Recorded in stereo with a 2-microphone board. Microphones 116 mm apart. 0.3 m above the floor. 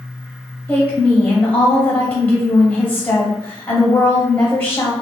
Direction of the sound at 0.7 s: 15° left (ahead or behind).